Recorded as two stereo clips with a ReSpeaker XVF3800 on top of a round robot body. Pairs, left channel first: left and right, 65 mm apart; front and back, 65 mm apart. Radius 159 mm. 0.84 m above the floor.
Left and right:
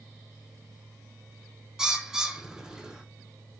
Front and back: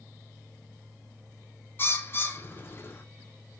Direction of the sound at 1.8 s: 15° right.